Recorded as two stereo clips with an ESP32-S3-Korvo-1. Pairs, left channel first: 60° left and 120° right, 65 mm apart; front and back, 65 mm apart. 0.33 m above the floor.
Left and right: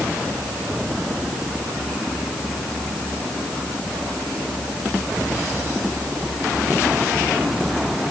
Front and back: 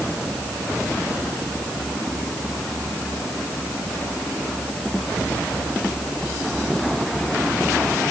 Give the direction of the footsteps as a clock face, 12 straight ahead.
I don't hear footsteps.